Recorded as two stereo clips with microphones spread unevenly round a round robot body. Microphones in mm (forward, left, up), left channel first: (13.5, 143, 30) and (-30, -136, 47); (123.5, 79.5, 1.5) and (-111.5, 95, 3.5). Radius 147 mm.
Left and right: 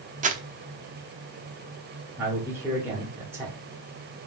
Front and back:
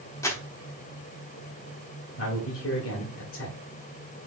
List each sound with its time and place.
0.2 s crumpling: 65° right, 0.7 m
2.2 s a man speaking: 15° right, 1.7 m